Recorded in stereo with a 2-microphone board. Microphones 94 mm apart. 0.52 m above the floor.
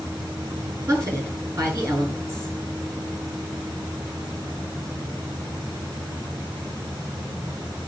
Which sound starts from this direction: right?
A woman speaking, at 0.9 s.